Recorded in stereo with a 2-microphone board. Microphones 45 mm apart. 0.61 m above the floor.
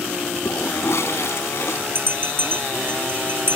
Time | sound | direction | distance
0.5 | a toilet flushing | 75° left (ahead or behind) | ?
1.9 | a bell | 55° right (ahead or behind) | ?